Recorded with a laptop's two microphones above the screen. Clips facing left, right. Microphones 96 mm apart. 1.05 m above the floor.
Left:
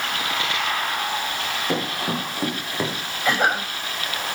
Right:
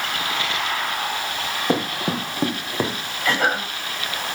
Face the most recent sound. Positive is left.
turn(degrees=15)  # may be behind; listen again after turning